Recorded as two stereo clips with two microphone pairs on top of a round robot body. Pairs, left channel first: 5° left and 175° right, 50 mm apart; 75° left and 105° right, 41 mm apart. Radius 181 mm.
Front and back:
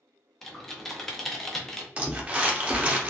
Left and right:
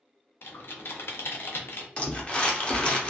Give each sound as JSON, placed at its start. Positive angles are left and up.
{"t": 0.4, "sound": "typing on a keyboard", "azimuth_deg": 95, "distance_m": 0.8}
{"t": 2.0, "sound": "crumpling", "azimuth_deg": 130, "distance_m": 1.0}